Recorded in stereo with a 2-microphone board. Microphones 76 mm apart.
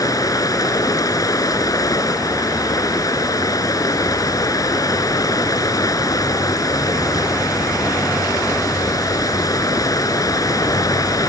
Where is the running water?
55° left (ahead or behind).